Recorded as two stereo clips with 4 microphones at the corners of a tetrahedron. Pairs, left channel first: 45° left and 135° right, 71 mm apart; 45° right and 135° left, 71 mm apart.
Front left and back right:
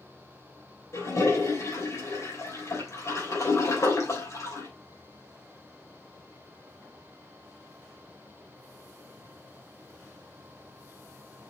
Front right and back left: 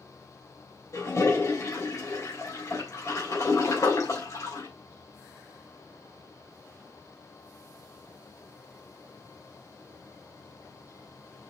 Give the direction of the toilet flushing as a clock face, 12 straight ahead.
12 o'clock.